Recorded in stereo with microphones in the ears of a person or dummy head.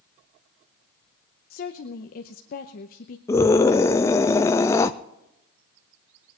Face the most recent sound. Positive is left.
turn(degrees=15)  # may be behind; listen again after turning